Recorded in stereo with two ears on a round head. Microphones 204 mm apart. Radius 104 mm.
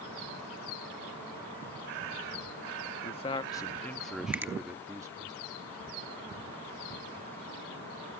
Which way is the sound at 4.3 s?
10° right (ahead or behind).